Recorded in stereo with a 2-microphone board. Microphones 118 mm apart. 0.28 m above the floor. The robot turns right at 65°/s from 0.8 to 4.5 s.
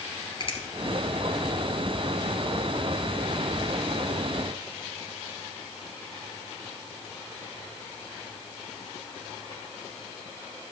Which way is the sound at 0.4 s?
50° left (ahead or behind).